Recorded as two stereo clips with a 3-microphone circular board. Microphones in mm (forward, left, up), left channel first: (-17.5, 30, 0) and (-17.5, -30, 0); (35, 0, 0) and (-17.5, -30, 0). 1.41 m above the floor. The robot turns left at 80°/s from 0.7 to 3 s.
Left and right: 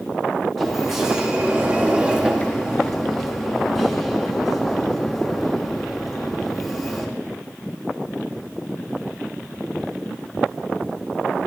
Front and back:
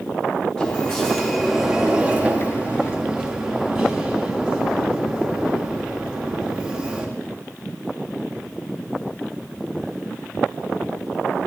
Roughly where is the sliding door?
Ahead.